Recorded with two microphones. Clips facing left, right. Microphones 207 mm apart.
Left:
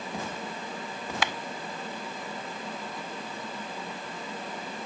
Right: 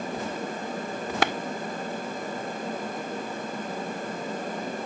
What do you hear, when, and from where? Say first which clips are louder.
1.2 s a clap: right 7 dB; 55° right (ahead or behind)